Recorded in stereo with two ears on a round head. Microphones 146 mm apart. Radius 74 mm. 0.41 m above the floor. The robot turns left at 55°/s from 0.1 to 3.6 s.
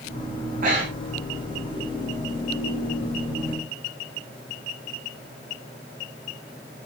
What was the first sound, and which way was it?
Breathing, 65° right (ahead or behind).